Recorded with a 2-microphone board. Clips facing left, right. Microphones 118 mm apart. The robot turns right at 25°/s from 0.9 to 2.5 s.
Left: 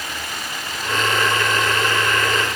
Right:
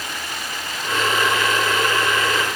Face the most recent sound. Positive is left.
No sound to turn to.